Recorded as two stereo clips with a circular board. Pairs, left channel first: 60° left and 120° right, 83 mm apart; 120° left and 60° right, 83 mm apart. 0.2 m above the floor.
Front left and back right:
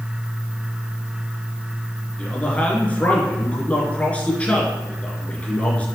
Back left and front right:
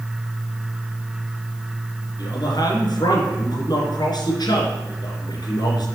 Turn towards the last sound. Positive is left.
turn(degrees=130)